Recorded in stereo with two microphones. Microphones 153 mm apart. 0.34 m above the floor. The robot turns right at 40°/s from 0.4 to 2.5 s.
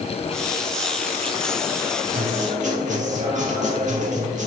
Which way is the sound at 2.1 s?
70° right (ahead or behind).